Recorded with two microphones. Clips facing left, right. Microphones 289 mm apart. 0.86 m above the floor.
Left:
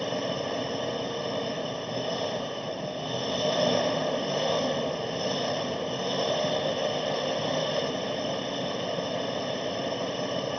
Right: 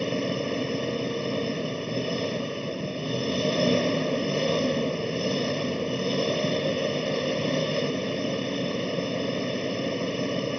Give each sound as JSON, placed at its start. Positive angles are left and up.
{"t": 0.0, "sound": "an engine running", "side_deg": -30}